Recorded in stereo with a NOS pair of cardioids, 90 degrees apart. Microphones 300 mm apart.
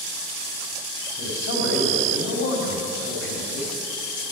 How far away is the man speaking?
About 4 m.